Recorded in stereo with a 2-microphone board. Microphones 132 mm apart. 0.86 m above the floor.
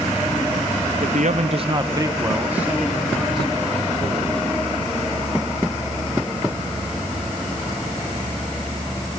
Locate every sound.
1.0 s a man speaking: 65° right (ahead or behind), 0.7 m; by 4.4 s 5° left (ahead or behind), 3 m